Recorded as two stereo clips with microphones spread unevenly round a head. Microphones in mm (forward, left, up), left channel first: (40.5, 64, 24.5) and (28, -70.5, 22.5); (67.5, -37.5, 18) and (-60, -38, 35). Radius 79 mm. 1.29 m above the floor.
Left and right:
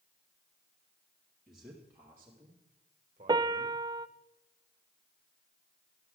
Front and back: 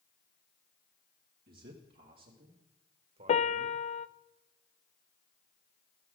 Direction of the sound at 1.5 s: 175° left.